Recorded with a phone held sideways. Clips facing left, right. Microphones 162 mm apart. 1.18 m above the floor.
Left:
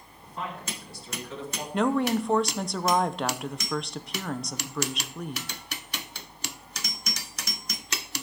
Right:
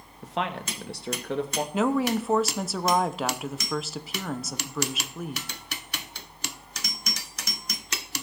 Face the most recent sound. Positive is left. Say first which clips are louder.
# even
turn(degrees=-5)  # may be behind; listen again after turning